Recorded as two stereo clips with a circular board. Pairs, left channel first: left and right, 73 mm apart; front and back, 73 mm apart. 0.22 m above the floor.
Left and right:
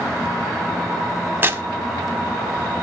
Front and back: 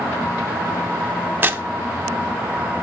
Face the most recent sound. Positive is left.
turn(degrees=-135)